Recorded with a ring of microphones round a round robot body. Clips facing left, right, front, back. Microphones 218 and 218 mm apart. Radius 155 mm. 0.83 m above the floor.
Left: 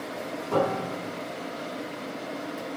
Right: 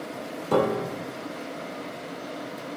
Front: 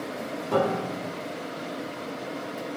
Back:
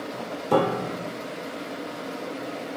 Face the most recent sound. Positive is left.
turn(degrees=-130)